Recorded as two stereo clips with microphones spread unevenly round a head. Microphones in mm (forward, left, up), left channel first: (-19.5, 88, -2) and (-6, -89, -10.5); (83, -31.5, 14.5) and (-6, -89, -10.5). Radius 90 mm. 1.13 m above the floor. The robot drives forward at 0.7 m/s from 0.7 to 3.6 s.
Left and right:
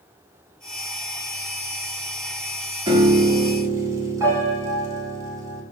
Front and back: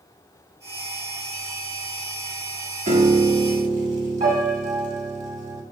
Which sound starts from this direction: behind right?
A piano, at 2.9 s.